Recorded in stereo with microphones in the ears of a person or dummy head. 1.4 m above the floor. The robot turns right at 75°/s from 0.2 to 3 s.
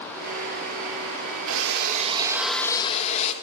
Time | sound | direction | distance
1.5 | a drill | 80° right | 2.0 m